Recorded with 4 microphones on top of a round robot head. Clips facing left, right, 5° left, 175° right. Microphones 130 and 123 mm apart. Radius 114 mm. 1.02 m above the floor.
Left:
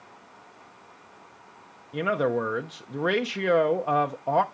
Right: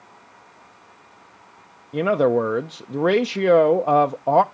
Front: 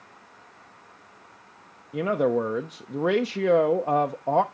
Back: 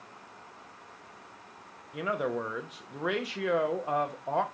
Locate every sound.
1.9 s a man speaking: 45° right, 0.6 m